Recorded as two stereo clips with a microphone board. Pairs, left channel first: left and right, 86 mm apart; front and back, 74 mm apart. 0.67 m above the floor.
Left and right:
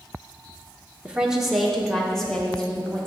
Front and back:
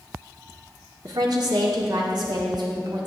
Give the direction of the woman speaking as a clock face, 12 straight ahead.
6 o'clock.